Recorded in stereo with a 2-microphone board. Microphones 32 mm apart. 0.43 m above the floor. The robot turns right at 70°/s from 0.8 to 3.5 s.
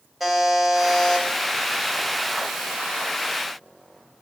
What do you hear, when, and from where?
0.2 s a buzzer: 5° right, 0.9 m; by 1.3 s 30° left, 0.9 m